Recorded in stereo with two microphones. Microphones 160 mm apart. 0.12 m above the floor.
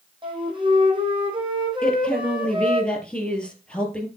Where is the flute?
30° right (ahead or behind), 3 m.